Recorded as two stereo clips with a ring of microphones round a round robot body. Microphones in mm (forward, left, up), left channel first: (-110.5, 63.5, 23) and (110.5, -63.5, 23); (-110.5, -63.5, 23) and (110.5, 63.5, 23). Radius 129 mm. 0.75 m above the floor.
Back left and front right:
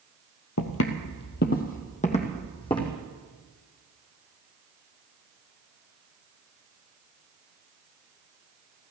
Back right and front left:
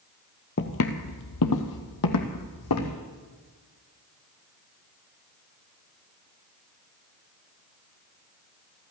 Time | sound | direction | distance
0.6 | footsteps | 170° left | 1.2 m